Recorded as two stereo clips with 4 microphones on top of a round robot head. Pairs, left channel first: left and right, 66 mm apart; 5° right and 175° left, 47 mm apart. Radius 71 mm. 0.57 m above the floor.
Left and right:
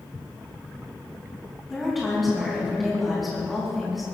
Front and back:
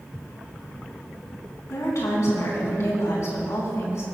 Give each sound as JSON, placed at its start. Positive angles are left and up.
{"t": 1.7, "sound": "a woman speaking", "azimuth_deg": 0, "distance_m": 4.5}